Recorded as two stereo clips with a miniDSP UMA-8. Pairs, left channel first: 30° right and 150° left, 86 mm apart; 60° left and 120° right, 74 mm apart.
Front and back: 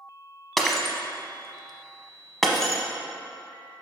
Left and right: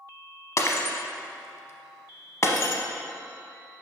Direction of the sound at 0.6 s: 55° left.